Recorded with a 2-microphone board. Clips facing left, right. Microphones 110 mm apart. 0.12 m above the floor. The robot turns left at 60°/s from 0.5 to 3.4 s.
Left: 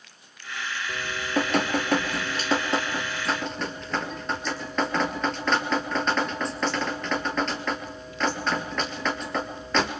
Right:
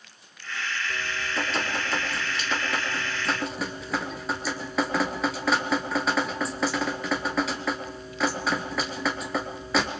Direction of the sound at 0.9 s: 140° left.